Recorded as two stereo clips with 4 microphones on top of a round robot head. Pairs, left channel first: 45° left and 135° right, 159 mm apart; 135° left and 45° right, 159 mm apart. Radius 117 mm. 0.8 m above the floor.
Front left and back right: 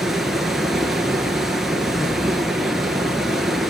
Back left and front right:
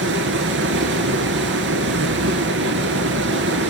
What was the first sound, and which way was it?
Running water, 45° right.